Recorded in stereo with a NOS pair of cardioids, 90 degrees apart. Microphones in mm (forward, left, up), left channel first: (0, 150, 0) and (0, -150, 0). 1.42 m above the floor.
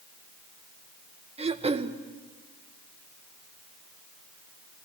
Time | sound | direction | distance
1.4 | throat clearing | 20° right | 1.6 m